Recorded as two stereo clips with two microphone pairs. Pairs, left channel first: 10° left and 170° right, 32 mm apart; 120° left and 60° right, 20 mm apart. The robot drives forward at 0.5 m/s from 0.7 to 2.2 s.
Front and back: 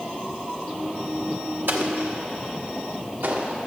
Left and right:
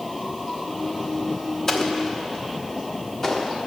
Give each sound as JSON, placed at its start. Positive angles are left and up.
{"t": 1.7, "sound": "an explosion", "azimuth_deg": -170, "distance_m": 1.1}